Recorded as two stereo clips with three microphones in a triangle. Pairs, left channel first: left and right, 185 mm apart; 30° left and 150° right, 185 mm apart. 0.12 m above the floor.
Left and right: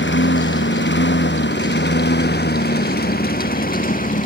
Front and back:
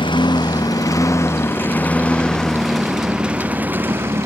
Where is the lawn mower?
95° left; by 4.3 s 135° left.